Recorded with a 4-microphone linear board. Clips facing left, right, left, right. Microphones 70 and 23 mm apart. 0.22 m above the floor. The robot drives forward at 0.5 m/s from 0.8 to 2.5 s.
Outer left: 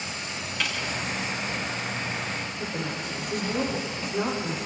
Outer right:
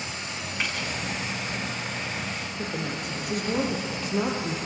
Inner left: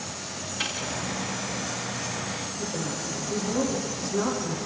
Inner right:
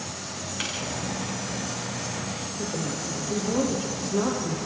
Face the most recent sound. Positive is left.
turn(degrees=-60)  # may be behind; listen again after turning